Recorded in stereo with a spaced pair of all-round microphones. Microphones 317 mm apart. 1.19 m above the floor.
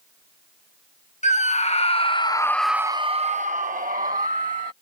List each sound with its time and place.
1.2 s a scream: 20° left (ahead or behind); by 4.7 s 25° right (ahead or behind)